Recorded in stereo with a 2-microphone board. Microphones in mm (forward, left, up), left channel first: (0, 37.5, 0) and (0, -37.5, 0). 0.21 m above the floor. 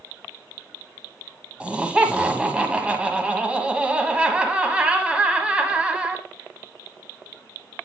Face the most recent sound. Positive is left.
turn(degrees=-15)  # may be behind; listen again after turning